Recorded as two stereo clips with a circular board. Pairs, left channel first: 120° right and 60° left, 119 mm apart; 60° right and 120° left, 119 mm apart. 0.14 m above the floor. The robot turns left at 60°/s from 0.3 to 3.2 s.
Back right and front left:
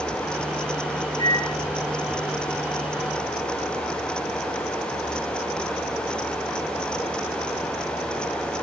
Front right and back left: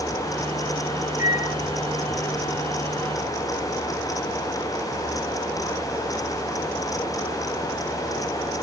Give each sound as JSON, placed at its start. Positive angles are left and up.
{"t": 1.2, "sound": "a microwave", "azimuth_deg": 60, "distance_m": 2.0}